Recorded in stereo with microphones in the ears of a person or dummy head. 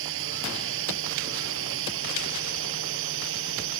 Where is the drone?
75° right (ahead or behind); by 3.8 s 80° right.